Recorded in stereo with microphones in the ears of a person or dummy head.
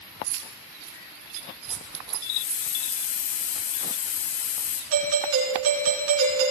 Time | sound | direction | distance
0.2 | keys jangling | 70° right (ahead or behind) | 3 m
2.2 | a hiss | 45° left (ahead or behind) | 3 m
4.9 | a doorbell | 85° right | 5.5 m